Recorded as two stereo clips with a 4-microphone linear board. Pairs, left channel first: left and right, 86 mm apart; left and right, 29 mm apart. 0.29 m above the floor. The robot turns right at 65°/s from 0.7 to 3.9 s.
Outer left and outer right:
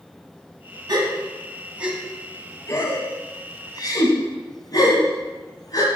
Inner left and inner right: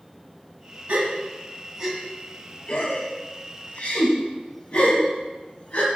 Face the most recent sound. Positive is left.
turn(degrees=45)  # may be behind; listen again after turning